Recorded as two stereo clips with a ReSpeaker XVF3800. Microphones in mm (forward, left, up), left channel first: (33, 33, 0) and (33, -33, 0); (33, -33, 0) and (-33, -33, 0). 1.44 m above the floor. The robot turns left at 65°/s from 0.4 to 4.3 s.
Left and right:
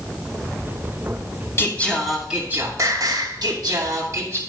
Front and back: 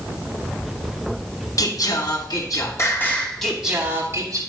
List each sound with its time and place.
1.6 s singing: 35° left, 2.5 m; by 4.4 s 145° right, 2.5 m